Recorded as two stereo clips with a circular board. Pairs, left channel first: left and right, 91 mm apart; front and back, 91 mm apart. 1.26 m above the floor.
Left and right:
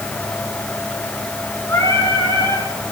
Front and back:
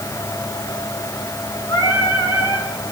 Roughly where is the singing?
Ahead left.